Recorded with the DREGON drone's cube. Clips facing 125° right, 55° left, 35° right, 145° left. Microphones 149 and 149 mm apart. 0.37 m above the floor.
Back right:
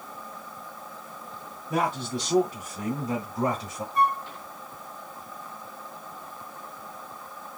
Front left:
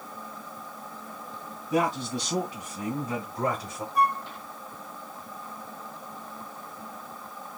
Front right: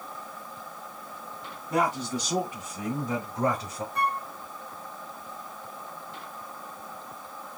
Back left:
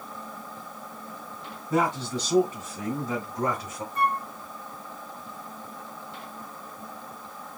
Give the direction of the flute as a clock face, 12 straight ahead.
1 o'clock.